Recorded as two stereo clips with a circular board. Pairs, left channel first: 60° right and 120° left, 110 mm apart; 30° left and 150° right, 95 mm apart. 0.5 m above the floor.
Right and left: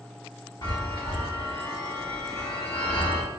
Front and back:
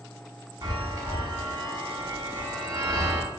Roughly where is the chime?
Right.